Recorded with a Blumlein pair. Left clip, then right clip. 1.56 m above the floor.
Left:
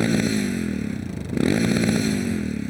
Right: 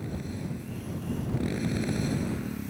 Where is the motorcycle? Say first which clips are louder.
Left 16 dB; 40° left; by 2.7 s 25° left.